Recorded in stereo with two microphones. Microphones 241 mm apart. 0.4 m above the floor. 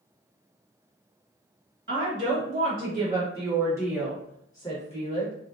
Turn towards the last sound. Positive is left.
turn(degrees=35)  # may be behind; listen again after turning